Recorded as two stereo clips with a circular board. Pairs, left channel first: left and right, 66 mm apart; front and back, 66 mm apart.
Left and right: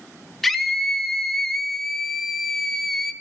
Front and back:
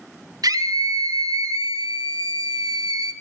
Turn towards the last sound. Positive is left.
turn(degrees=180)